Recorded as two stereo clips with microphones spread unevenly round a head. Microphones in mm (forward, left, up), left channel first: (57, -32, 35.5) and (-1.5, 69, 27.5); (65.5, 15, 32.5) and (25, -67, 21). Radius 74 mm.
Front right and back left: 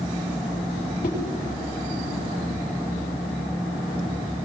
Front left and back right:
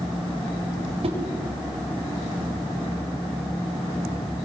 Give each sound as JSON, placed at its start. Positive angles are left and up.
{"t": 1.0, "sound": "a whoosh", "azimuth_deg": -95, "distance_m": 5.0}